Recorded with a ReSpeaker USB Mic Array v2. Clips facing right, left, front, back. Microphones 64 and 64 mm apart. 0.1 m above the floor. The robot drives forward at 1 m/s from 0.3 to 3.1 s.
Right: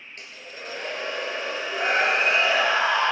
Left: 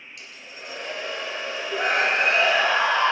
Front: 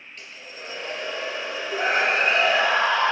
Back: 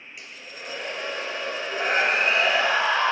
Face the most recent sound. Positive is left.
turn(degrees=110)